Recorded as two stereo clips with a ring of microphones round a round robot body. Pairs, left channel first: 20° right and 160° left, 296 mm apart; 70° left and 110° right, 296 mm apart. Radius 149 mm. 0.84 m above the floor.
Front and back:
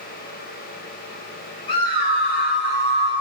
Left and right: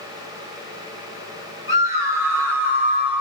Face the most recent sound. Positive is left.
turn(degrees=-25)